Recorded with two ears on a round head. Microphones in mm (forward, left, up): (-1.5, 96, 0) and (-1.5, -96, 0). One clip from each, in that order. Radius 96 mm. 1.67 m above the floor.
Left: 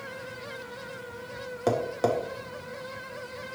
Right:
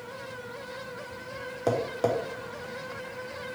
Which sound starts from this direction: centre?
Tapping, at 1.7 s.